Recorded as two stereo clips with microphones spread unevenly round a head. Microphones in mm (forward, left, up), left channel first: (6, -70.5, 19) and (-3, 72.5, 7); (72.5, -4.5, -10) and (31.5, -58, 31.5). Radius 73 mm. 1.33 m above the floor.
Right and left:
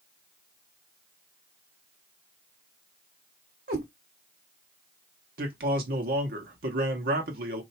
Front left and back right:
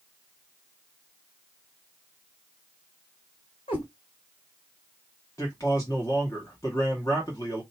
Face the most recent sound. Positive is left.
turn(degrees=120)